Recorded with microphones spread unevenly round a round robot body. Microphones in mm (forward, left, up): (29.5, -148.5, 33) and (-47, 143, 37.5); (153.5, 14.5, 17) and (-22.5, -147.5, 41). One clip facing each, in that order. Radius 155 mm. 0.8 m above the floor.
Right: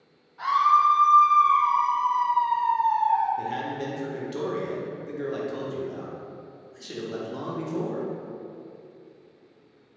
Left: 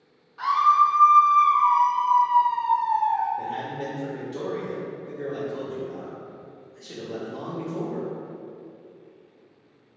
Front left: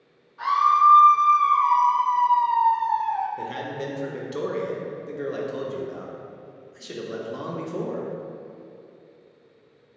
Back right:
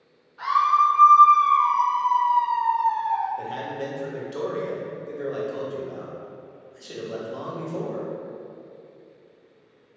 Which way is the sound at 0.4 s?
135° left.